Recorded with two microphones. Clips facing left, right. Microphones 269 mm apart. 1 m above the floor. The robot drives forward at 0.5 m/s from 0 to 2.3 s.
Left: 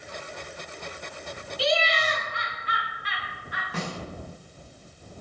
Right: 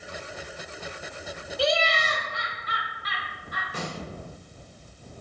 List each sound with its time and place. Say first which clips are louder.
1.6 s laughter: right 1 dB; 55° right (ahead or behind), 0.6 m; by 3.6 s 45° right (ahead or behind), 0.7 m
3.7 s a snare drum: left 2 dB; 65° left (ahead or behind), 1.3 m